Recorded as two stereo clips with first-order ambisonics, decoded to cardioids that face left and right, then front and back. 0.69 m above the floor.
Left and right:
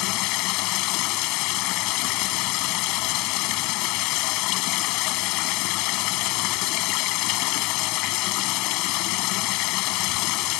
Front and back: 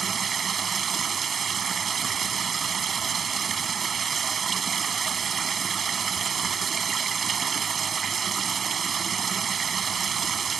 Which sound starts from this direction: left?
Running water, at 0.0 s.